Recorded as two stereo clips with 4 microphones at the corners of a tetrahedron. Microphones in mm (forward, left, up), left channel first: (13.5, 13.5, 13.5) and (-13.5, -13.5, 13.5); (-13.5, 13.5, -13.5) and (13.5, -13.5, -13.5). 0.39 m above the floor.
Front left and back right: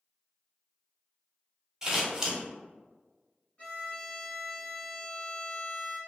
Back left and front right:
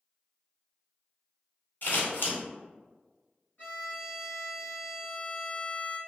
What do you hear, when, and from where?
1.8 s scissors: 150° left, 0.9 m
3.6 s a violin: 95° left, 1.5 m